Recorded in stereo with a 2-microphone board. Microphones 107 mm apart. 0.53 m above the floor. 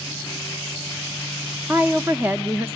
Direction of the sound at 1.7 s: 20° right (ahead or behind).